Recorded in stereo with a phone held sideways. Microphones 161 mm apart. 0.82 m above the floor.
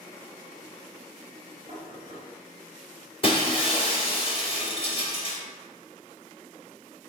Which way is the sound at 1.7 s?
45° right (ahead or behind).